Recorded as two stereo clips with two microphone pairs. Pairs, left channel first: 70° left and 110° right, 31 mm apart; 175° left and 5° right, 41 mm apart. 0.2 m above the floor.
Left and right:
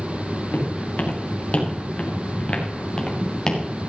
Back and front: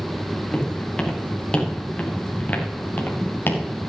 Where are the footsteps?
100° left, 4 m; by 3.6 s 140° left, 3 m.